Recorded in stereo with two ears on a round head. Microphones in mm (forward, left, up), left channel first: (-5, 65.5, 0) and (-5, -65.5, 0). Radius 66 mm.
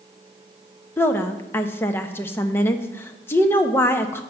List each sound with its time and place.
1.0 s a woman speaking: 15° left (ahead or behind), 0.6 m